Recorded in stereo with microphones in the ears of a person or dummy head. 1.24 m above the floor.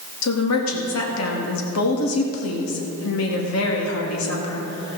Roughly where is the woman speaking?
Left.